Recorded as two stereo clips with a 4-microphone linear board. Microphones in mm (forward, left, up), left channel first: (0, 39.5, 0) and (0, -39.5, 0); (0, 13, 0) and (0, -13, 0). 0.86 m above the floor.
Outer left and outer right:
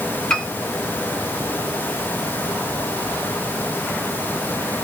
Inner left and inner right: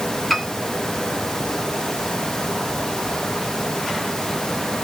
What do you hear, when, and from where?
0.3 s a piano: 5° left (ahead or behind), 1.7 m